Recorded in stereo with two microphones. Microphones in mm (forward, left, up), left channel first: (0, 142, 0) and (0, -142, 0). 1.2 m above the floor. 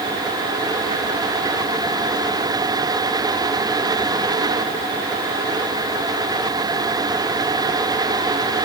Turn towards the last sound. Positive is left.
No sound to turn to.